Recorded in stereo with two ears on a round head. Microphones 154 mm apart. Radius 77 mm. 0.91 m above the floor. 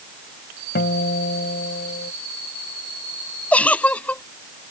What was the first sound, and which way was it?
A guitar, 60° left (ahead or behind).